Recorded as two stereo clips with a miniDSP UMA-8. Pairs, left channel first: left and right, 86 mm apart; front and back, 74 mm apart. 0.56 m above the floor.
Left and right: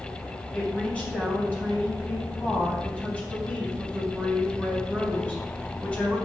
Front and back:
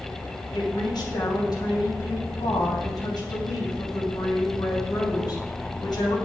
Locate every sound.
0.5 s a woman speaking: 15° left, 3.5 m